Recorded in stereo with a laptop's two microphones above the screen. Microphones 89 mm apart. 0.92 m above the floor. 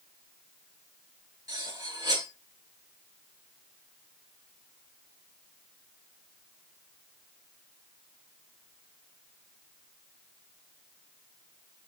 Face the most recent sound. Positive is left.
turn(degrees=-45)  # may be behind; listen again after turning